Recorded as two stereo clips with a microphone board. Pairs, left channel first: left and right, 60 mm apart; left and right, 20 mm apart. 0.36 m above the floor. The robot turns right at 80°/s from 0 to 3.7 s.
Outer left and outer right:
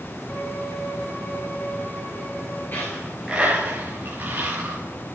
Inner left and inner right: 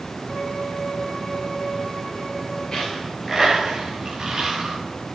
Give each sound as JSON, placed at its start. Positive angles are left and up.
{"t": 0.3, "sound": "a violin", "azimuth_deg": 25, "distance_m": 5.0}
{"t": 2.7, "sound": "a dropped coin", "side_deg": 35, "distance_m": 6.5}